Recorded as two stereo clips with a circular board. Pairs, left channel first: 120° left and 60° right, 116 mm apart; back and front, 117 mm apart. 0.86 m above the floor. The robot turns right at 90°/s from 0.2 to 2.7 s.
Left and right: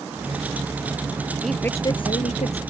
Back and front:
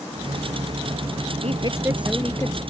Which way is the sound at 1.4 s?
25° left.